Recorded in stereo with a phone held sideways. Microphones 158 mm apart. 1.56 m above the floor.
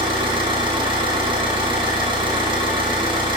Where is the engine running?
30° right (ahead or behind), 1.5 m.